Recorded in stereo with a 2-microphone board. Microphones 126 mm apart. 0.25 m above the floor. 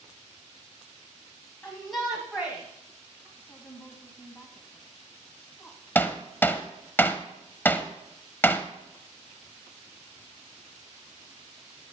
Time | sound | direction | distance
1.6 | a shout | 10° left (ahead or behind) | 1.5 m
3.4 | a woman speaking | 15° left (ahead or behind) | 1.8 m
6.0 | hammering | 15° left (ahead or behind) | 0.6 m